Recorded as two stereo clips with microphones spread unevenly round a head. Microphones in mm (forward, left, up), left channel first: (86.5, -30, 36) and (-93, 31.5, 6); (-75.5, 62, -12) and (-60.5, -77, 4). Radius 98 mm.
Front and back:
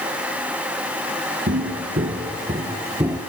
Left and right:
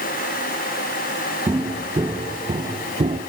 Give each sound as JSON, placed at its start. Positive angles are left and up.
{"t": 1.5, "sound": "footsteps", "azimuth_deg": -150, "distance_m": 1.9}